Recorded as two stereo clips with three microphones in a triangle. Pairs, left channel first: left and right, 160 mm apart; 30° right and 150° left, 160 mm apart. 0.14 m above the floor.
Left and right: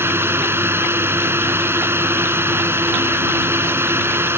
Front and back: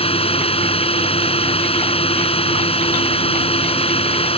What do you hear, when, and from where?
0.0 s a drone: 25° right